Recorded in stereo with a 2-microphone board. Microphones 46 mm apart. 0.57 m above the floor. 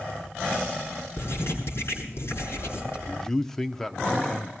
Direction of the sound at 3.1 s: 5° left (ahead or behind).